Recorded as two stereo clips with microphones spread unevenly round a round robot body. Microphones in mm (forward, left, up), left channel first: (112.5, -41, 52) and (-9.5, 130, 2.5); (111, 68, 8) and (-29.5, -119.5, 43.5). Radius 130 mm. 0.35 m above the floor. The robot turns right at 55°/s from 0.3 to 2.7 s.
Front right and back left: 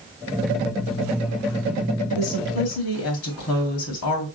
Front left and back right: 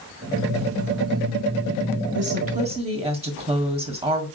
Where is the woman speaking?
90° right, 1.9 m; by 4.3 s 60° right, 1.9 m.